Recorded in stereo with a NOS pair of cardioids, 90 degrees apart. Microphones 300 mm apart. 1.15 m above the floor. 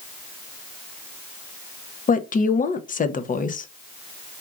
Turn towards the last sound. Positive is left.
turn(degrees=25)